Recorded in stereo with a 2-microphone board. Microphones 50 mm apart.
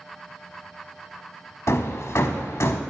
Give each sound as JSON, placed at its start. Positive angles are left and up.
{"t": 1.7, "sound": "hammering", "side_deg": 70, "distance_m": 0.7}